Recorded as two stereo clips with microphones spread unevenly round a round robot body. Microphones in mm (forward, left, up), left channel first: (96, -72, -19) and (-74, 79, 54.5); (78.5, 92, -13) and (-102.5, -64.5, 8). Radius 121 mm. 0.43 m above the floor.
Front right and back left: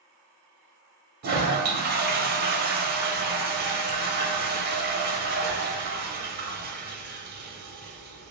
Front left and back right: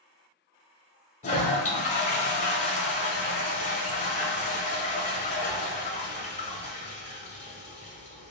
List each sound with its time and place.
1.2 s a toilet flushing: 85° left, 0.8 m